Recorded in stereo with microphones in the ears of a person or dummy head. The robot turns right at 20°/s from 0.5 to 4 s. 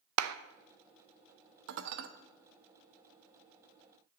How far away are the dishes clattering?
About 0.9 m.